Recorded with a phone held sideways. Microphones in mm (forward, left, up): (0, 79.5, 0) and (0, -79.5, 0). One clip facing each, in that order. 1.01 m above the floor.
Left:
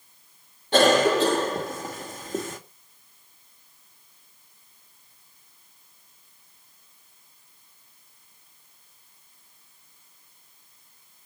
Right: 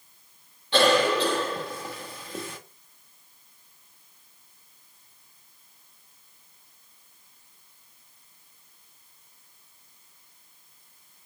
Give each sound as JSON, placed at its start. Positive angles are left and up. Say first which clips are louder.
{"t": 0.7, "sound": "a cough", "louder": "left 3 dB", "side_deg": 50, "distance_m": 1.7}